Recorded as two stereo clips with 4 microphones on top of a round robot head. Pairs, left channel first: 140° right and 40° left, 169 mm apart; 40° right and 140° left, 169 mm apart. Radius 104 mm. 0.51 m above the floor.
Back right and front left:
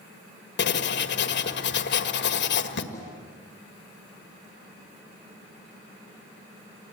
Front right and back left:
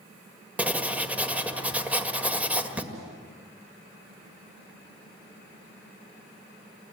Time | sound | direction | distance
0.6 | writing | 135° right | 1.7 m
2.9 | a snare drum | 145° left | 7.5 m